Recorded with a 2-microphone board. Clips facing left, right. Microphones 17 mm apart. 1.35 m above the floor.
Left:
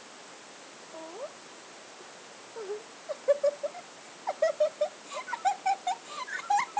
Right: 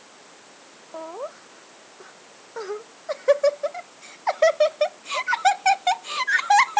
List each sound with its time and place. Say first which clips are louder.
0.9 s laughter: right 8 dB; 80° right